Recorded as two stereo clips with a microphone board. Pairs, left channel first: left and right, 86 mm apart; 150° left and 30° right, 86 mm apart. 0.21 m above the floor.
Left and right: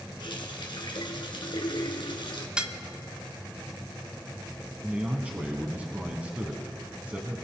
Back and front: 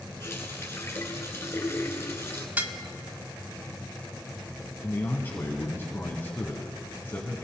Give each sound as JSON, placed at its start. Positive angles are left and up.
{"t": 0.2, "sound": "a running tap", "azimuth_deg": 95, "distance_m": 1.7}
{"t": 2.6, "sound": "dishes clattering", "azimuth_deg": -30, "distance_m": 0.7}
{"t": 4.8, "sound": "a man speaking", "azimuth_deg": -155, "distance_m": 1.8}